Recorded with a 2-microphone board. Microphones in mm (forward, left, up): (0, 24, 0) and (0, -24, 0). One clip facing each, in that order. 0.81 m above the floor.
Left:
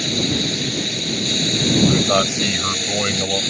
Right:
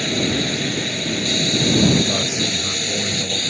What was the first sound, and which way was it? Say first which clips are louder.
A drone: right 1 dB; 25° right (ahead or behind).